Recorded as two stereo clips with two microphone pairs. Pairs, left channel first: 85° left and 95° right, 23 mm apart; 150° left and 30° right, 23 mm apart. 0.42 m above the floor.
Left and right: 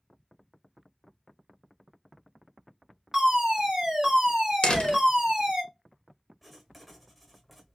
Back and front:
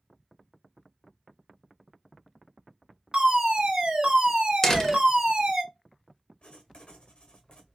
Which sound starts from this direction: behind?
Writing, at 6.4 s.